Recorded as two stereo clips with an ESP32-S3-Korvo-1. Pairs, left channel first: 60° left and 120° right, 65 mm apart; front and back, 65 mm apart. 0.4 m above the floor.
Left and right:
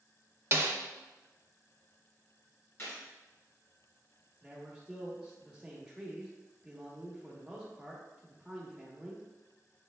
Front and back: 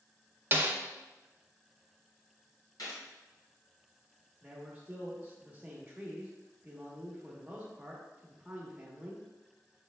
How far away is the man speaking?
About 1.0 m.